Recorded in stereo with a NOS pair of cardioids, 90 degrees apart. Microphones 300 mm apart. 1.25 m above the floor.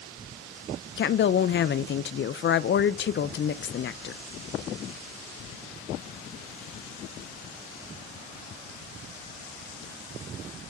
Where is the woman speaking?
40° left, 0.6 m.